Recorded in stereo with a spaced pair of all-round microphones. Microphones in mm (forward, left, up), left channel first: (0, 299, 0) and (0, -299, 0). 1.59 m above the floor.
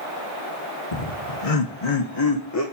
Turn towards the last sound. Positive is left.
turn(degrees=25)  # may be behind; listen again after turning